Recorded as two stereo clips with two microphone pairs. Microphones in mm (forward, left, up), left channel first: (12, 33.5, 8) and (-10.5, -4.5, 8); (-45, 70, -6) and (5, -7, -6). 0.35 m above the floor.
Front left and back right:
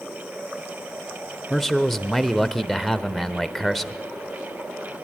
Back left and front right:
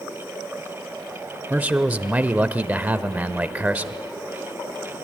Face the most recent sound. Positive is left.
turn(degrees=-20)